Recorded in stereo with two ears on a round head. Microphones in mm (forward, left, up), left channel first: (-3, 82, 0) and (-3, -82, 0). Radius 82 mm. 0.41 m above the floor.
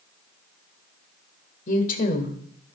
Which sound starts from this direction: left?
A woman speaking, at 1.7 s.